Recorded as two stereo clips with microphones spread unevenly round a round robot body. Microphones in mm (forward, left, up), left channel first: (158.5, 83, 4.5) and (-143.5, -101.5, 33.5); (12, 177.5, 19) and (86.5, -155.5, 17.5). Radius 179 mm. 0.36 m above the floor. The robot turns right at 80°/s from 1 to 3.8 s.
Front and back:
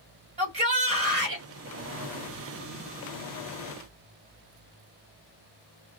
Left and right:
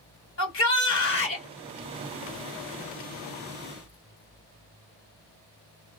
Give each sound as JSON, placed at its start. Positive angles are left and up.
{"t": 0.4, "sound": "a shout", "azimuth_deg": 140, "distance_m": 1.7}